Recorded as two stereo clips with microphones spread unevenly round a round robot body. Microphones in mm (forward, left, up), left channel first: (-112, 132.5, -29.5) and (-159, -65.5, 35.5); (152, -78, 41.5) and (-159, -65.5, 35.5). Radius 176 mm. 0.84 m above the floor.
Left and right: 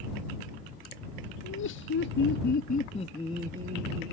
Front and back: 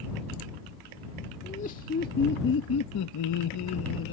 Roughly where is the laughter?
Left.